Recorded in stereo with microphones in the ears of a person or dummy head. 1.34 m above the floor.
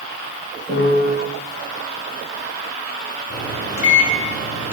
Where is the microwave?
45° left (ahead or behind), 2 m.